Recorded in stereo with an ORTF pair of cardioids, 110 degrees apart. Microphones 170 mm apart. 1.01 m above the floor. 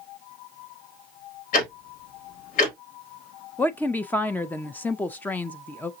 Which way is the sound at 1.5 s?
55° left.